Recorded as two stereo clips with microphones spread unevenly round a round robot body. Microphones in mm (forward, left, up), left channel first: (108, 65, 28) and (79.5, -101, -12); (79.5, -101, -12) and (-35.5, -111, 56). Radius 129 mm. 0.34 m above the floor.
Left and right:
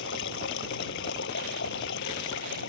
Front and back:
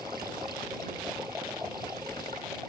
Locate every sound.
0.0 s running water: 110° left